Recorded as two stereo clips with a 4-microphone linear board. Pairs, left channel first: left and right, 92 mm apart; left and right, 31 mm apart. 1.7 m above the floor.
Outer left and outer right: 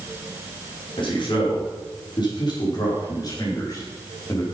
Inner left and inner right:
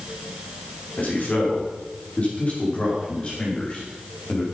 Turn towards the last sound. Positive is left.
turn(degrees=30)  # may be behind; listen again after turning